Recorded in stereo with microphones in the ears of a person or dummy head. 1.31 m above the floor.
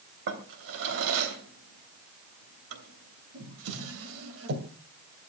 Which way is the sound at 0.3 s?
70° right (ahead or behind).